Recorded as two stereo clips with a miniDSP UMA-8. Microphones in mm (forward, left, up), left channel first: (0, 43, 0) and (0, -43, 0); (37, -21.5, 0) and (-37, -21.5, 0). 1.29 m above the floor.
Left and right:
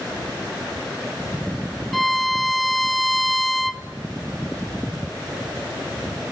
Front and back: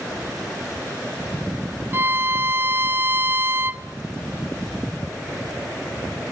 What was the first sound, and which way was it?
A violin, straight behind.